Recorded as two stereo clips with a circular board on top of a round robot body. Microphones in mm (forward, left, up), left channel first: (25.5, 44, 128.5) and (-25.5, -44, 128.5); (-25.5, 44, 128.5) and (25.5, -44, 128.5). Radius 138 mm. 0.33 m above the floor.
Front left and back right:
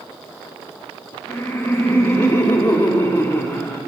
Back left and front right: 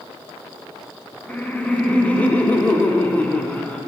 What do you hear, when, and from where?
1.3 s laughter: 65° left, 1.6 m